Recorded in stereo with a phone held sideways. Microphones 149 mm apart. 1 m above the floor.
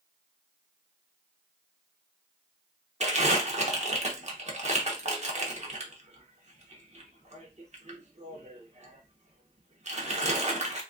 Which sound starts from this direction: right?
Crumpling, at 3.0 s.